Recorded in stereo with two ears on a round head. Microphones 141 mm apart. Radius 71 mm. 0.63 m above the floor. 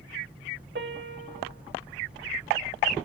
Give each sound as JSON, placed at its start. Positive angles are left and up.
{"t": 0.8, "sound": "a piano", "side_deg": -75, "distance_m": 1.6}